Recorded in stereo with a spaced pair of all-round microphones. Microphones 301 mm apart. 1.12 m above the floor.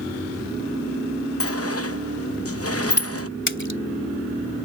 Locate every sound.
1.4 s a sliding door: 55° left (ahead or behind)
3.5 s a splash: 40° left (ahead or behind)